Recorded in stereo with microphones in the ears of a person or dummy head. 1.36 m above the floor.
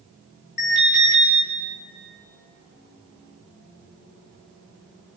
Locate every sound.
0.6 s an alarm: 55° left (ahead or behind), 8.5 m